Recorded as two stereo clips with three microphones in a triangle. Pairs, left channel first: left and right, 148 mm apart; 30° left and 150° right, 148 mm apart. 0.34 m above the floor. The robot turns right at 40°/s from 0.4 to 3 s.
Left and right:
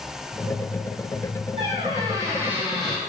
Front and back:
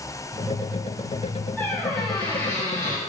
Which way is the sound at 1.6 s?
50° right.